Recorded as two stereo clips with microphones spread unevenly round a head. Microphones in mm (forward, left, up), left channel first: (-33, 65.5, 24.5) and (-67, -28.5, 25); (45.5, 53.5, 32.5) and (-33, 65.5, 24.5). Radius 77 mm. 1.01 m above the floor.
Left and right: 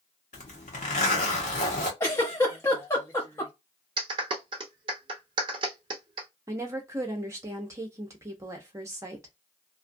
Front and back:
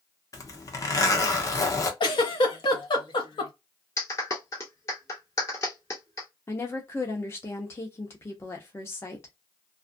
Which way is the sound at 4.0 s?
70° right.